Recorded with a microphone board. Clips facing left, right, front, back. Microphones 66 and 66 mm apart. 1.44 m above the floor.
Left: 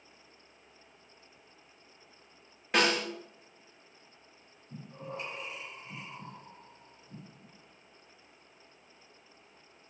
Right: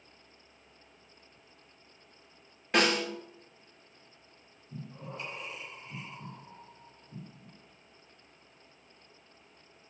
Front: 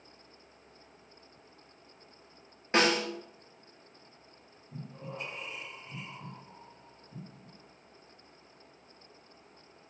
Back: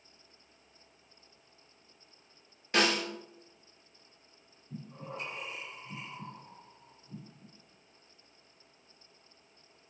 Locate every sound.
2.7 s a snare drum: 5° left, 1.0 m
4.7 s breathing: 155° left, 1.4 m